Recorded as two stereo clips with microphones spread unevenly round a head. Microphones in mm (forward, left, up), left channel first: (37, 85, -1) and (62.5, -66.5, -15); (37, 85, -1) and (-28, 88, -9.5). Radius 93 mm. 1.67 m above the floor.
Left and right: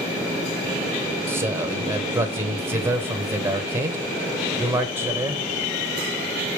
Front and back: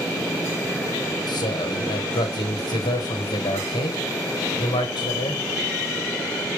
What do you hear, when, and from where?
1.3 s a man speaking: 20° right, 1.2 m